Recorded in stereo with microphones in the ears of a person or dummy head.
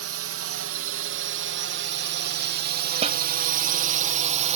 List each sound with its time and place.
0.0 s a drone: 65° right (ahead or behind); by 4.6 s 35° right (ahead or behind)
3.0 s a snare drum: 35° right (ahead or behind)